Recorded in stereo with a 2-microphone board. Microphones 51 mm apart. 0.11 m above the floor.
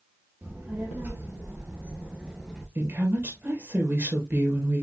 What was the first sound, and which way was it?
A child speaking, 55° right (ahead or behind).